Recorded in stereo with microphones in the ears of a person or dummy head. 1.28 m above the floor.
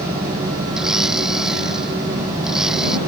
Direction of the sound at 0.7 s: 5° right (ahead or behind).